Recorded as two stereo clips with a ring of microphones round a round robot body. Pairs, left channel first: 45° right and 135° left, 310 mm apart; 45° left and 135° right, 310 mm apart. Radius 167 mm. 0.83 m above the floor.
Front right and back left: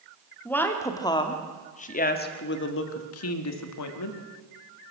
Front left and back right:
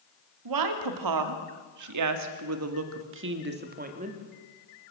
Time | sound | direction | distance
0.5 | a woman speaking | 130° right | 2 m